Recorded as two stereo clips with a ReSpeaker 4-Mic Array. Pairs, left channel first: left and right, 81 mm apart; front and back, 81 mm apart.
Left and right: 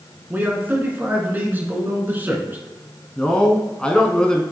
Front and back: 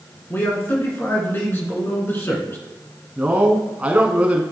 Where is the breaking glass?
I don't hear breaking glass.